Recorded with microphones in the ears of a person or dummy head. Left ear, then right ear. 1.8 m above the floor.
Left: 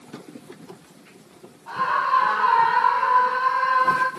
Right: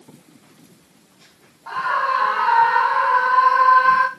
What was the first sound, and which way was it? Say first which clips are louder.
A scream: right 1 dB; 65° right (ahead or behind).